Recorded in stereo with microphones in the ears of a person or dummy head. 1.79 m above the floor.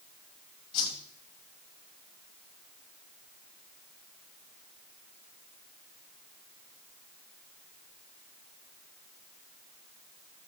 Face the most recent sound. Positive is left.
turn(degrees=30)  # may be behind; listen again after turning